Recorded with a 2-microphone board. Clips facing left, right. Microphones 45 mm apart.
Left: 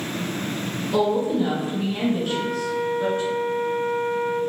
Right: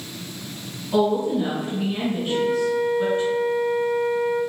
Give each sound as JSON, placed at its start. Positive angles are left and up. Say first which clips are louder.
{"t": 0.9, "sound": "a woman speaking", "louder": "right 1 dB", "side_deg": -35, "distance_m": 1.8}
{"t": 2.2, "sound": "a flute", "louder": "right 4 dB", "side_deg": 50, "distance_m": 0.5}